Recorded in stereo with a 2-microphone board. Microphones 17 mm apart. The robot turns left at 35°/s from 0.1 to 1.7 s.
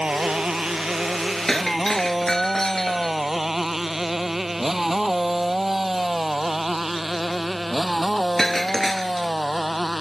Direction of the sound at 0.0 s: 80° right.